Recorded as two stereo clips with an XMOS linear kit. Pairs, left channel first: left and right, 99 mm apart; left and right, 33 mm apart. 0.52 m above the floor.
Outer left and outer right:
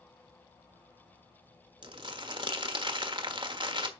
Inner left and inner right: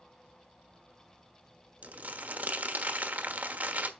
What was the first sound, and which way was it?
Crumpling, 55° right (ahead or behind).